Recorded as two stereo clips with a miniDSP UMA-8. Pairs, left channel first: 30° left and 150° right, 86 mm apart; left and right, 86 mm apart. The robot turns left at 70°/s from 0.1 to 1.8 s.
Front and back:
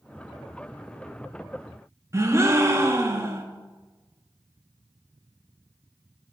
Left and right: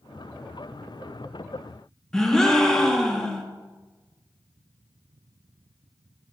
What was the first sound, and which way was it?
A gasp, 170° left.